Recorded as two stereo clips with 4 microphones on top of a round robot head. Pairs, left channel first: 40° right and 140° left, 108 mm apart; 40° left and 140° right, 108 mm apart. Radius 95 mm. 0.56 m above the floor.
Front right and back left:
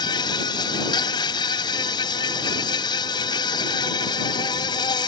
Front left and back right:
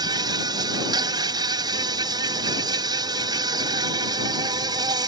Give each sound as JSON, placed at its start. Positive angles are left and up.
{"t": 0.0, "sound": "an insect", "azimuth_deg": -90}